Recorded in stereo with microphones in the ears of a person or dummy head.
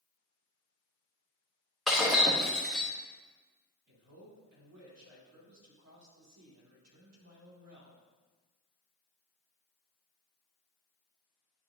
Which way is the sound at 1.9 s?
Centre (ahead or behind).